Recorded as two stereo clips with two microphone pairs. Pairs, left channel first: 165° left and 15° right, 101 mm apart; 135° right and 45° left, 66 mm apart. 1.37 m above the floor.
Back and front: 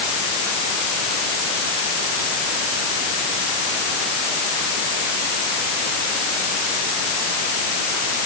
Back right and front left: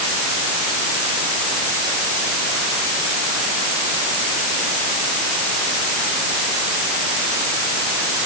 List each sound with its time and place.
Only background noise.